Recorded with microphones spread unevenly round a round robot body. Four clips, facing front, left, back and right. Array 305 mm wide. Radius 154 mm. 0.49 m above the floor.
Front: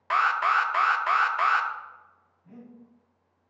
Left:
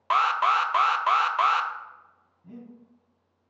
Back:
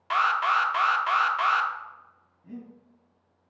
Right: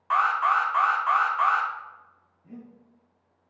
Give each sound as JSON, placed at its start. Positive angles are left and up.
{"t": 0.1, "sound": "an alarm", "azimuth_deg": 70, "distance_m": 0.5}
{"t": 2.4, "sound": "breathing", "azimuth_deg": 130, "distance_m": 2.5}